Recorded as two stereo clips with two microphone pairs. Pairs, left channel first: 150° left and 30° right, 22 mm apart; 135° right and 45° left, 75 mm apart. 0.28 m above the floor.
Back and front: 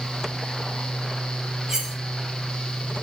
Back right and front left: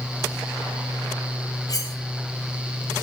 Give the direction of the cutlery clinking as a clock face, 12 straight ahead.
3 o'clock.